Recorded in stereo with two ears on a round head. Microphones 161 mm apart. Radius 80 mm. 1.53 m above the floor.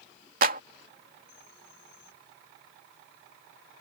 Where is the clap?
50° right (ahead or behind).